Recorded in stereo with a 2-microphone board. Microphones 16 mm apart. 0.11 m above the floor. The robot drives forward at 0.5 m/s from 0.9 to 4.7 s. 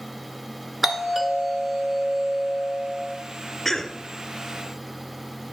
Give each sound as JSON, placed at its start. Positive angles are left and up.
{"t": 0.8, "sound": "a doorbell", "side_deg": -15, "distance_m": 1.5}
{"t": 3.6, "sound": "a cough", "side_deg": 15, "distance_m": 1.1}